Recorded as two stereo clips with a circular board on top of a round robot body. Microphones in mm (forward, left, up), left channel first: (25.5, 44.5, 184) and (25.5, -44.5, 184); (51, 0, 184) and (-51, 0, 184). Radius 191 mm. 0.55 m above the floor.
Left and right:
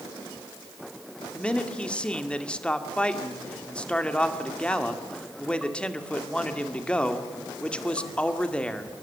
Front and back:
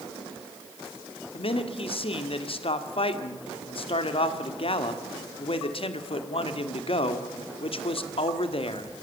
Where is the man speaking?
10° left, 2 m.